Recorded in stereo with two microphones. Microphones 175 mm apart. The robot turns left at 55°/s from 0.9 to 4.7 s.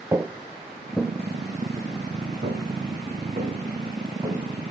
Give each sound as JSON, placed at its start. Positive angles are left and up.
{"t": 0.1, "sound": "footsteps", "side_deg": -15, "distance_m": 0.6}